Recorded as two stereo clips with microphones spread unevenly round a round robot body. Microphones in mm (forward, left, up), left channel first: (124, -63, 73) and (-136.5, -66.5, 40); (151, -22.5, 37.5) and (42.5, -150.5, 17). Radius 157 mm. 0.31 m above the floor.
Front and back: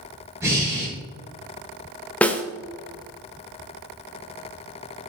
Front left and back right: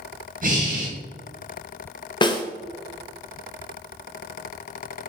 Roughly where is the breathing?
Right.